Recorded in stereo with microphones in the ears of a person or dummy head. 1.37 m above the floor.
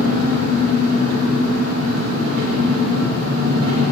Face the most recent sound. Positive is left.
turn(degrees=-80)